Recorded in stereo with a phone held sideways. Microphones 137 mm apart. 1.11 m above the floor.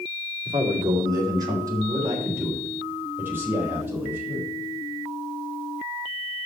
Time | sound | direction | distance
0.5 | a man speaking | 35° right (ahead or behind) | 2 m